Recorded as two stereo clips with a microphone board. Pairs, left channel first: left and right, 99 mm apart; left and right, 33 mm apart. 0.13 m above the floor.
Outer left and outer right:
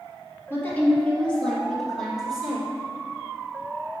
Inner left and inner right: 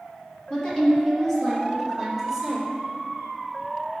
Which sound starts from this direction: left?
A woman speaking, at 0.5 s.